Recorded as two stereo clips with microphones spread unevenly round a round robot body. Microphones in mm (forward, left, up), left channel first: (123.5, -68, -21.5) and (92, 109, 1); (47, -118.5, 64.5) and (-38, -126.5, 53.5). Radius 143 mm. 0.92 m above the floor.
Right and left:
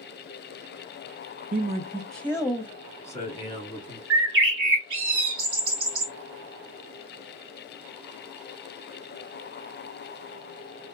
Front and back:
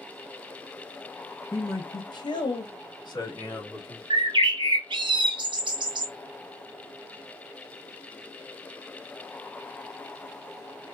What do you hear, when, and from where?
1.5 s a man speaking: 75° left, 1.0 m; by 4.0 s 40° right, 3 m
4.1 s a bird: 140° left, 0.6 m